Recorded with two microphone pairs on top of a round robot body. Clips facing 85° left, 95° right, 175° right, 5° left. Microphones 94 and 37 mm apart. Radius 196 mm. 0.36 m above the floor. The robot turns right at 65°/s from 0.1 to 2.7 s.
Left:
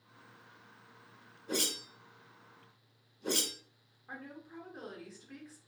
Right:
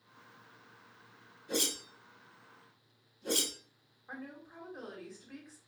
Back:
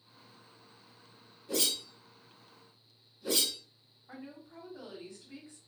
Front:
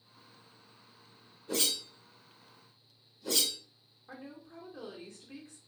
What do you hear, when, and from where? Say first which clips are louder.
1.5 s a whoosh: right 1 dB, even; 30° left, 2.0 m; by 3.6 s 110° left, 2.0 m
4.1 s a woman speaking: right 1 dB, even; 10° right, 1.7 m